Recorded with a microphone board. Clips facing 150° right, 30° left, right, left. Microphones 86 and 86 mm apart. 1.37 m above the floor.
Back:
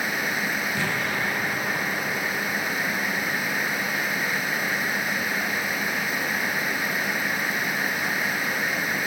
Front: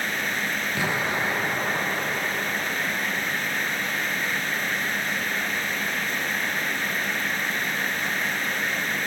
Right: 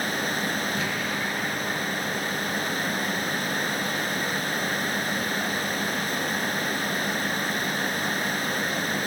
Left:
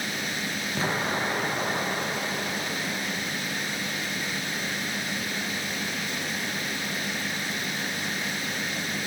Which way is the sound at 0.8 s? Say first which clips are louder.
Front 1 dB, left 1 dB; 85° left.